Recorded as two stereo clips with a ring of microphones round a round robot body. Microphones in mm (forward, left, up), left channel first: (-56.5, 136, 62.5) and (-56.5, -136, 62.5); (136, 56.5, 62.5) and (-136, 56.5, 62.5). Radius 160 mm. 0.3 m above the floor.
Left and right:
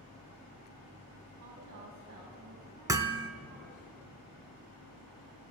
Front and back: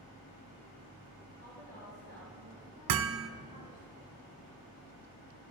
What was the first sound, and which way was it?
A woman speaking, 65° right.